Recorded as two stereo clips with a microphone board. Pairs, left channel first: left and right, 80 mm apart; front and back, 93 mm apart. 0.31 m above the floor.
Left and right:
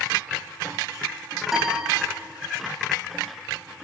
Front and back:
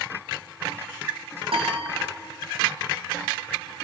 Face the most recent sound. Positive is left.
turn(degrees=-175)